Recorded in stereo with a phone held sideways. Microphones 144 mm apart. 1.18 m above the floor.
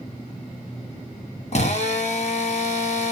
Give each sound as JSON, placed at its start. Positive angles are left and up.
{"t": 1.5, "sound": "a drill", "side_deg": 50, "distance_m": 1.1}